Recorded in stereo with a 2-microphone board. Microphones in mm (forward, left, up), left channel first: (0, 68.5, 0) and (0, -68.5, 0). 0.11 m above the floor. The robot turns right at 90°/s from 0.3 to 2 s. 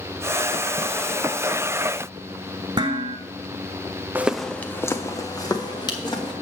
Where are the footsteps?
15° right (ahead or behind), 0.6 m; by 6.3 s 35° left (ahead or behind), 2.5 m.